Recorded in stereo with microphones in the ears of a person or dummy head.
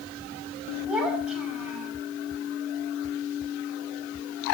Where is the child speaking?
5° right (ahead or behind), 6 m.